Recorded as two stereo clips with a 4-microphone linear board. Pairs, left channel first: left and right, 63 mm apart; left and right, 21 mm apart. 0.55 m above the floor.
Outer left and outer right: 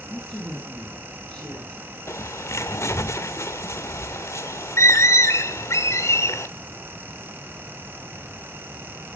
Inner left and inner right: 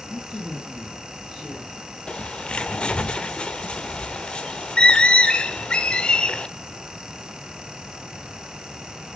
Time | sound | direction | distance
0.1 | a woman speaking | 5° right (ahead or behind) | 7 m
2.1 | a bird | 45° left (ahead or behind) | 1.1 m